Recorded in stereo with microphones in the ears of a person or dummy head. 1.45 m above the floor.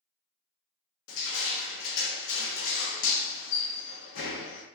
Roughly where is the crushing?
Left.